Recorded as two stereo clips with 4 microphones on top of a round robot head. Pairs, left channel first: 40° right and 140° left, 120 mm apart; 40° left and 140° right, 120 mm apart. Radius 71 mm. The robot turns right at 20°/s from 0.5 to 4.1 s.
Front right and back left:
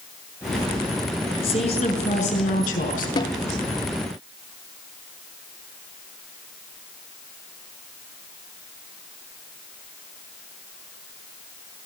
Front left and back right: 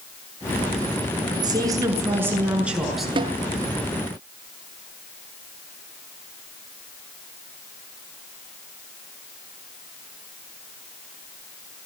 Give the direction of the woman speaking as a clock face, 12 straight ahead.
3 o'clock.